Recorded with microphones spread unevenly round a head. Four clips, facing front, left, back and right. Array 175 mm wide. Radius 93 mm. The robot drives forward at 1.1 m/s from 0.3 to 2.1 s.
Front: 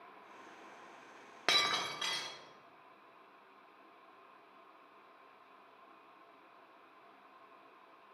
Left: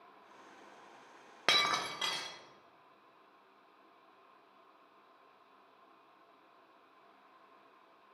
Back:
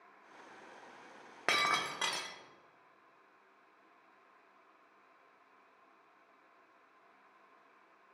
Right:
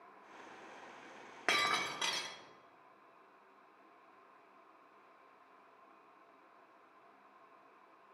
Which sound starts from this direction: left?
Breaking glass, at 1.5 s.